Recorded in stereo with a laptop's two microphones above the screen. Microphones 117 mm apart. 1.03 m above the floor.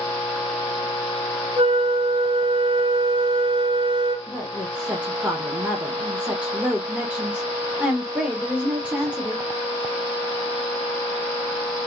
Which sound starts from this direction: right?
A flute, at 1.6 s.